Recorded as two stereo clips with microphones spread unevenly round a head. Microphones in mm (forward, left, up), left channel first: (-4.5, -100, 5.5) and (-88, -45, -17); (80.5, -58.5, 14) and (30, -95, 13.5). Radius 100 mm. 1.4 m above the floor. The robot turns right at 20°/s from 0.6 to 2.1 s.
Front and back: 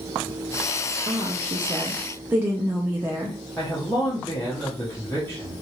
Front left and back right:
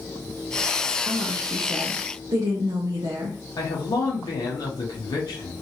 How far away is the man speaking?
About 0.7 m.